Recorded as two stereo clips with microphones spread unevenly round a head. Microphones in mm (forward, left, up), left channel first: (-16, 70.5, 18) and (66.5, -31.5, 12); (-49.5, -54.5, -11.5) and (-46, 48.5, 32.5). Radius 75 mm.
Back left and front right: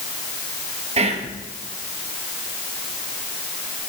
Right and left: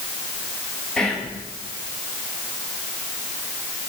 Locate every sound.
1.0 s whispering: 25° right, 1.5 m